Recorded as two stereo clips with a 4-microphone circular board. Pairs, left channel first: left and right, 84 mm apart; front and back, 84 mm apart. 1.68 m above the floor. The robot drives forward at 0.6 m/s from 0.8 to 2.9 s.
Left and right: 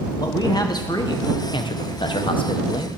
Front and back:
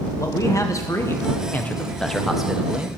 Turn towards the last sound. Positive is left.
turn(degrees=110)